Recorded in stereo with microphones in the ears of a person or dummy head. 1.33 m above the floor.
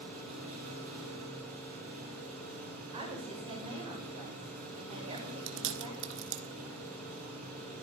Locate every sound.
0.0 s an engine running: 40° right (ahead or behind), 4 m
2.9 s a woman speaking: 30° right (ahead or behind), 6.5 m
5.2 s chewing: 65° right (ahead or behind), 1.8 m